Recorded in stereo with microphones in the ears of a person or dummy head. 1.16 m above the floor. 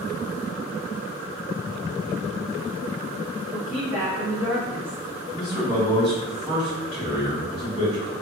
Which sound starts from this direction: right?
A man speaking, at 5.3 s.